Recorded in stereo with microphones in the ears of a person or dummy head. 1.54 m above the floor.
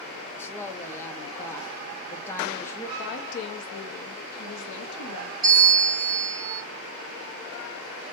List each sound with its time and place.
0.4 s a woman speaking: 20° left (ahead or behind), 0.6 m
3.0 s a woman speaking: 60° left (ahead or behind), 0.8 m
5.4 s a bell: 20° right (ahead or behind), 1.6 m